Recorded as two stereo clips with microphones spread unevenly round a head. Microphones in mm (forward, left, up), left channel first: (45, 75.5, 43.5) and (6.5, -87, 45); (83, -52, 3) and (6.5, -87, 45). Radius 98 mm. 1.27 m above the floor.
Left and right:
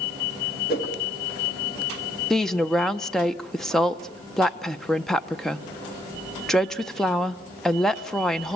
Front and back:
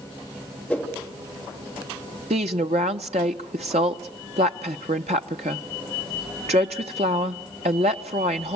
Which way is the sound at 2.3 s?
165° left.